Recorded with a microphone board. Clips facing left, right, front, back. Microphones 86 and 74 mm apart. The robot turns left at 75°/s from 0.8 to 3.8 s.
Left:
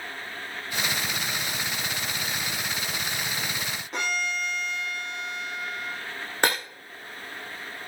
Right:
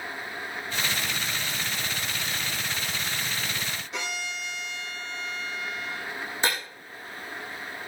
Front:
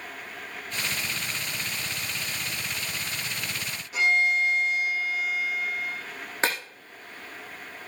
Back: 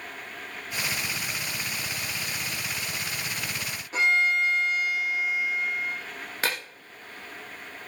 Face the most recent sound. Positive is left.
turn(degrees=65)